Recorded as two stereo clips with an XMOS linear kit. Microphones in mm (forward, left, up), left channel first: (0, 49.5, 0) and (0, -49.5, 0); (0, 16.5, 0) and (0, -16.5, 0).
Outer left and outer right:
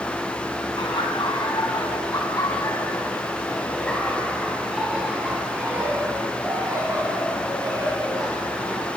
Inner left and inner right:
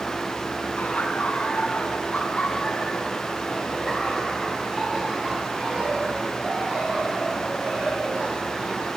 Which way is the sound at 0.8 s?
55° left (ahead or behind).